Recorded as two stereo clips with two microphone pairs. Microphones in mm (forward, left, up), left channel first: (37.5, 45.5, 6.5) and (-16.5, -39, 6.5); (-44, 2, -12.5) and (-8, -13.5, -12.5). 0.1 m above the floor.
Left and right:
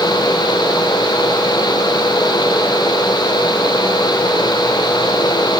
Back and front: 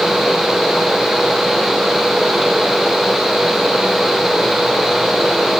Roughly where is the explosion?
I don't hear an explosion.